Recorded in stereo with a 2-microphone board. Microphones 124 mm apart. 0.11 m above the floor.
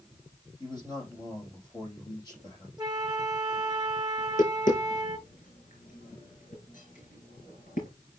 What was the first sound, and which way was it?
A man speaking, 30° left (ahead or behind).